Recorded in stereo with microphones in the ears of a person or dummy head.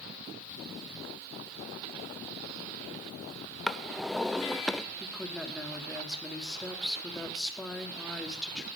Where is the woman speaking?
5° right (ahead or behind), 2.5 m.